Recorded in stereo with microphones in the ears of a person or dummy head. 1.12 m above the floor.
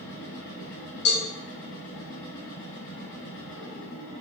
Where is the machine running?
60° left (ahead or behind), 1.9 m.